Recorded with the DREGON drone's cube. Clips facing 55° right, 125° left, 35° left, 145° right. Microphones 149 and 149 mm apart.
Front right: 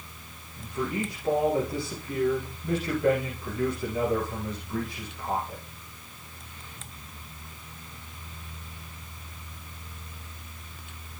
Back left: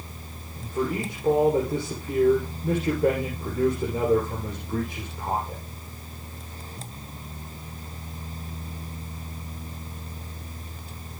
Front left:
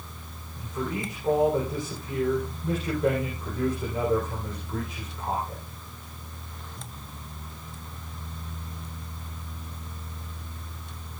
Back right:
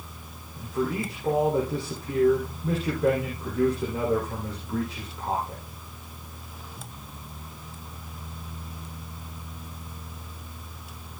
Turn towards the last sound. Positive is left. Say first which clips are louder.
# back left 3 dB, back right 4 dB
turn(degrees=155)